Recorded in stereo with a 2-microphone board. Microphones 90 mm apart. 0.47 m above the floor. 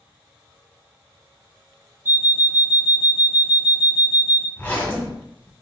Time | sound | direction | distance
2.0 | an alarm clock | 25° right (ahead or behind) | 0.6 m
4.6 | a zipper | 20° left (ahead or behind) | 1.6 m